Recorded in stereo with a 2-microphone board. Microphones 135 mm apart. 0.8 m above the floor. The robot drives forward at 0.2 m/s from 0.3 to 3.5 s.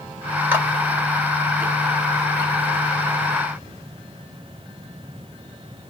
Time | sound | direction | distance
0.5 | a clap | 15° right (ahead or behind) | 1.6 m